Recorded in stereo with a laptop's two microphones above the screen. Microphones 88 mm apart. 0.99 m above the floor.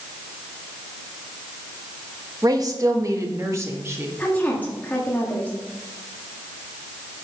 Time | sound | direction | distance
2.4 | a woman speaking | 45° right (ahead or behind) | 1.3 m
4.2 | a woman speaking | 20° left (ahead or behind) | 1.8 m